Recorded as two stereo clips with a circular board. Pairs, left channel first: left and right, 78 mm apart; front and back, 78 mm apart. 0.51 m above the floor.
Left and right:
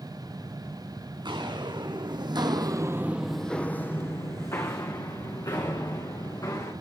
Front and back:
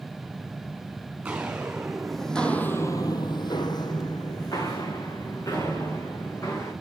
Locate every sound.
1.2 s footsteps: 105° right, 3 m; by 6.7 s 50° left, 5.5 m